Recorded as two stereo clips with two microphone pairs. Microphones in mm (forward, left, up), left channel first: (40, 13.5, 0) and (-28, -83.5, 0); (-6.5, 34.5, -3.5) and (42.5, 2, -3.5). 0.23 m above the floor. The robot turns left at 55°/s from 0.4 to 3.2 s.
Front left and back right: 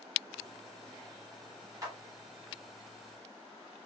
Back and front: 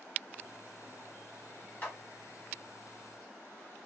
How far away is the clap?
About 1.1 m.